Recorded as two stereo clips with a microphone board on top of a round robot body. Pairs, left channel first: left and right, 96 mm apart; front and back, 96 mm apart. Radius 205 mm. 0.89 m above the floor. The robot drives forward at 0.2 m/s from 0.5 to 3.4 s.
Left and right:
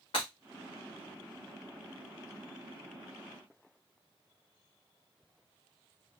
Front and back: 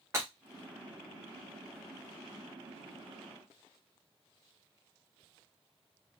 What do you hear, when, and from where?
0.1 s breaking glass: 115° left, 0.9 m